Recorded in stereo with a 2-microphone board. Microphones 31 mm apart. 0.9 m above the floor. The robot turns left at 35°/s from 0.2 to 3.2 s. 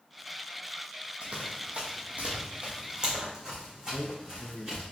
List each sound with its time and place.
1.2 s running footsteps: 40° right (ahead or behind), 1.2 m; by 4.9 s 20° right (ahead or behind), 3 m
3.9 s a man speaking: 30° left (ahead or behind), 0.6 m